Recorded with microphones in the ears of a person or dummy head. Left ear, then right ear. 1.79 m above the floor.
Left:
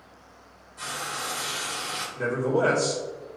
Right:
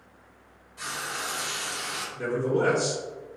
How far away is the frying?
About 0.9 m.